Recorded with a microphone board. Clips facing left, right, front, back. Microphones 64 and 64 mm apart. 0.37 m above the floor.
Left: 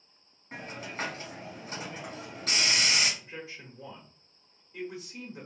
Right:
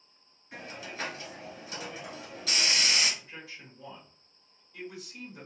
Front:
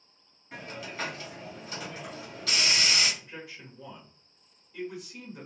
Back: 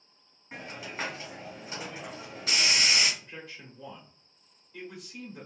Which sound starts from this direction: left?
A man speaking, at 3.2 s.